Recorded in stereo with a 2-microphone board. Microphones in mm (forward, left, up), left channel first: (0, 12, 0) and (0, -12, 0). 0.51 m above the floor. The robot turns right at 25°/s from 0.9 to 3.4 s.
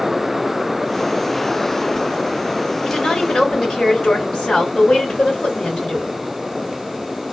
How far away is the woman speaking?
About 2.5 m.